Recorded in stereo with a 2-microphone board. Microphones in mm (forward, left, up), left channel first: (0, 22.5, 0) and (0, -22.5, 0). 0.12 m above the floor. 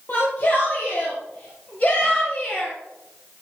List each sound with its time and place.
0.1 s a shout: 50° left (ahead or behind), 3.5 m; by 2.7 s 30° left (ahead or behind), 2.5 m